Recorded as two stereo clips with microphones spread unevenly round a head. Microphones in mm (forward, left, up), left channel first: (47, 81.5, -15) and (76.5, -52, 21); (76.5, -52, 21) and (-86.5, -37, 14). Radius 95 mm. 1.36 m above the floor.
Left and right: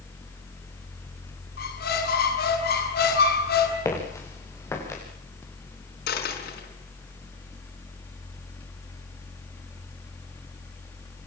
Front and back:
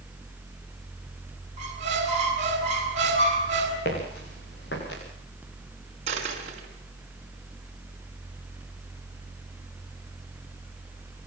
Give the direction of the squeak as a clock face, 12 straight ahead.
8 o'clock.